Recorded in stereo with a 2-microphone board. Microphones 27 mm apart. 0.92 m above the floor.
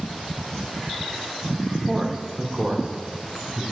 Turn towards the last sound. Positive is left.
turn(degrees=-35)  # may be behind; listen again after turning